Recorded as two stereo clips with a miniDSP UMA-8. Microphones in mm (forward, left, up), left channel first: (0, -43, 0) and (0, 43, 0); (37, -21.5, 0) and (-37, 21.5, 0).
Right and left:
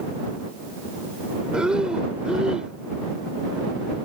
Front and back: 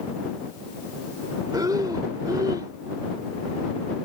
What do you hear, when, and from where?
1.5 s breathing: 170° left